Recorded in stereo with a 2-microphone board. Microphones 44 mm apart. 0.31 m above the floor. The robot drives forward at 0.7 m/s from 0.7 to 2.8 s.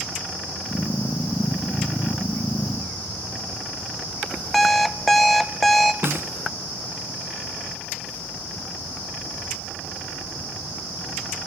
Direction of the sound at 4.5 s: 5° left (ahead or behind).